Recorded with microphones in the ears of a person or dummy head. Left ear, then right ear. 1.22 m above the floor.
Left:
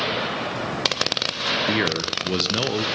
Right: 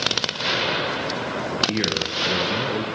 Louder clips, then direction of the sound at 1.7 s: Left 1 dB; 45° left (ahead or behind).